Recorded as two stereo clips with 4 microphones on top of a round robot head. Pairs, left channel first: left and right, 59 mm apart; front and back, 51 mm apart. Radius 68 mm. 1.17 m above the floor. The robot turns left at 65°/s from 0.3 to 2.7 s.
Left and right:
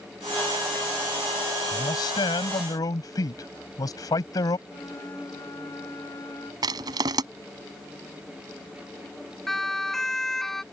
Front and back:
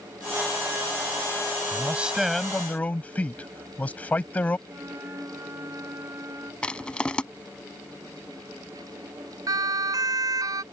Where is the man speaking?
130° left; by 4.6 s 65° left.